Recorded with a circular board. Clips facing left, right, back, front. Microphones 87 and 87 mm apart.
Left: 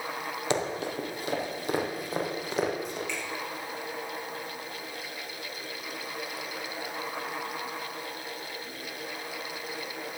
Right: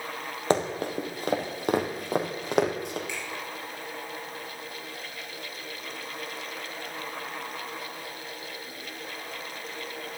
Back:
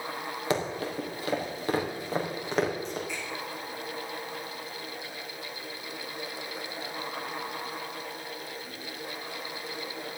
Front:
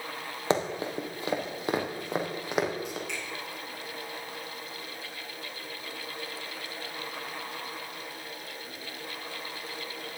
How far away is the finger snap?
About 7 m.